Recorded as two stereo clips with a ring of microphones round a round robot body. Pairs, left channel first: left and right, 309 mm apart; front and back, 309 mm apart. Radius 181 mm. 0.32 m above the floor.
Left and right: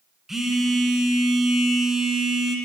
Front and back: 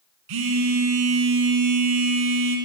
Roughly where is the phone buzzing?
Behind.